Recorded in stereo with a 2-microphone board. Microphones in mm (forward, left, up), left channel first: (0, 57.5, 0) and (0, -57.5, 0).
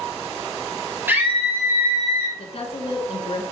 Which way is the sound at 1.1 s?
15° right (ahead or behind).